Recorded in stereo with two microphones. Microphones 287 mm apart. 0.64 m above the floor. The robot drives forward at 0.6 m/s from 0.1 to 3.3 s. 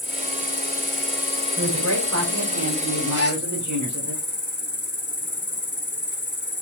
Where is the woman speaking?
60° right (ahead or behind), 2.5 m; by 4.1 s 75° right (ahead or behind), 2.5 m.